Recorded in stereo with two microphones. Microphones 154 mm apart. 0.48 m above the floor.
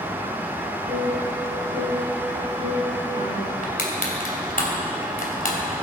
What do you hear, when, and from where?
0.9 s a piano: 50° right (ahead or behind), 7 m
3.6 s crushing: 65° left (ahead or behind), 3 m